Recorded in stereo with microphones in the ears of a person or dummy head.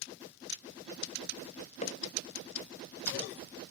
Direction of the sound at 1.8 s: 40° left (ahead or behind).